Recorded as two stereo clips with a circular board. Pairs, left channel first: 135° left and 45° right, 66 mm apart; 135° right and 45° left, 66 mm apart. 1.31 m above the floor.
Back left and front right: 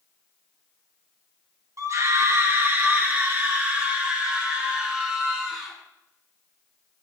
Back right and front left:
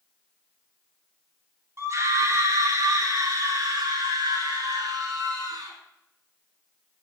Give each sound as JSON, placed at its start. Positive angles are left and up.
{"t": 1.8, "sound": "a scream", "azimuth_deg": 0, "distance_m": 1.6}